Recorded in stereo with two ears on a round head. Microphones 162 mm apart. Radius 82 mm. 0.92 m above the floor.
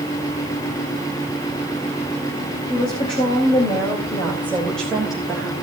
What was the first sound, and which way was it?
A woman speaking, 35° left (ahead or behind).